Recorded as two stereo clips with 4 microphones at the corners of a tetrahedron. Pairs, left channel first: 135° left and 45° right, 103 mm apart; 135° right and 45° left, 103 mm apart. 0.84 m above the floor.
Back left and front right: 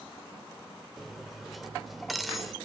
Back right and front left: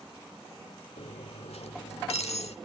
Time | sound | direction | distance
1.0 | cutlery clinking | 135° right | 1.6 m